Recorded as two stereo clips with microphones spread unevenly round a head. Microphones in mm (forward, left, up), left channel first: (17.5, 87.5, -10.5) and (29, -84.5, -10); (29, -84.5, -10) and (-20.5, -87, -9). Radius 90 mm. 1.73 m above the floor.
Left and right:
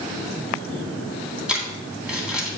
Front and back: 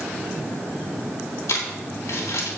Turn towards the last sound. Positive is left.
turn(degrees=0)